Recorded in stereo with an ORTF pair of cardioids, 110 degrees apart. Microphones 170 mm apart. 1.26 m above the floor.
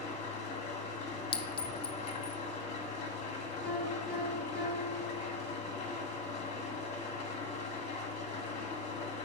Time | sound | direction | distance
0.0 | an engine running | 40° left | 2 m
1.3 | a clink | 30° left | 0.5 m
3.6 | a piano | 5° left | 4 m